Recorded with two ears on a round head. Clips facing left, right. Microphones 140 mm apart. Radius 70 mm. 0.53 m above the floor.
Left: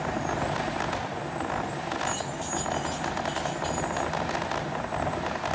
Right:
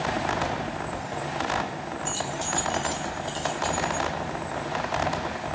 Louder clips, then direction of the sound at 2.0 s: Right 1 dB; 35° right (ahead or behind).